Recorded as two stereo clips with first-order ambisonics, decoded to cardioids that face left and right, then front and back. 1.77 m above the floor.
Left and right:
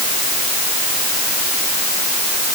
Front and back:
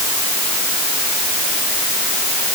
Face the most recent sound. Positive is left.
No sound to turn to.